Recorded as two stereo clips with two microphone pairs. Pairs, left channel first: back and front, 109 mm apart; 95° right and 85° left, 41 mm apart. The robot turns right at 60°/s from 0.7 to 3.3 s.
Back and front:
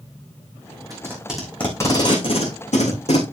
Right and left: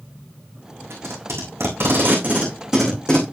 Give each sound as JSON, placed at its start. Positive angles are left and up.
{"t": 0.9, "sound": "tape being pulled", "azimuth_deg": 60, "distance_m": 5.0}